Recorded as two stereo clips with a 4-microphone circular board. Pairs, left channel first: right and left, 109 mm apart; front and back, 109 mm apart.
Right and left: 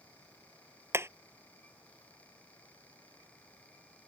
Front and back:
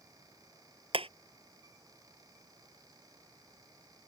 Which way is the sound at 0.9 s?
155° left.